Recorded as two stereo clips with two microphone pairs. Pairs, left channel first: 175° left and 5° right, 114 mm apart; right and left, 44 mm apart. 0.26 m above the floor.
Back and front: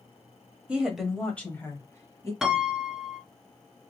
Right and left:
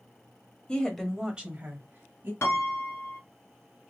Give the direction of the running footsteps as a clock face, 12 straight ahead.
No running footsteps in this recording.